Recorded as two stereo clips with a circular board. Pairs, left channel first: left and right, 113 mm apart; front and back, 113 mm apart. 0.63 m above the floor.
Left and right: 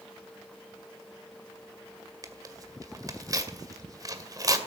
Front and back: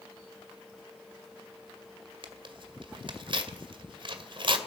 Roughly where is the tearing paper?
Behind right.